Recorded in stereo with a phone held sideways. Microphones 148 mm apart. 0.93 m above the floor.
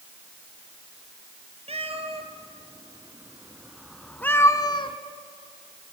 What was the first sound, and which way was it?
A cat meowing, 45° right (ahead or behind).